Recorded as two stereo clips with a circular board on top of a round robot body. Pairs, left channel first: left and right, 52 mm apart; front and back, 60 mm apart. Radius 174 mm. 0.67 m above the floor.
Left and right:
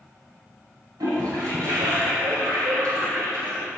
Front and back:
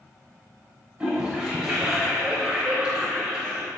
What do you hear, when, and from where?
1.0 s a toilet flushing: 105° right, 0.5 m